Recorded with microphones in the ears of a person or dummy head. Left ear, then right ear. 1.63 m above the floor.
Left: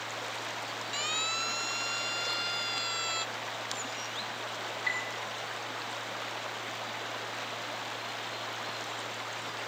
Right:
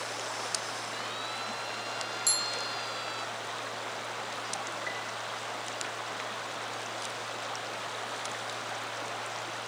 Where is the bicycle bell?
50° right (ahead or behind).